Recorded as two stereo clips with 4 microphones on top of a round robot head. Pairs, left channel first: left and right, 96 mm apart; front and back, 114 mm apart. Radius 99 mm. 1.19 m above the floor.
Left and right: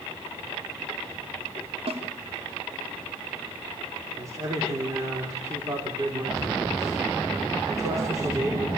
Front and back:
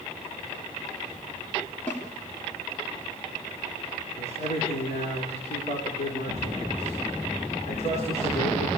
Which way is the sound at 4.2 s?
35° right.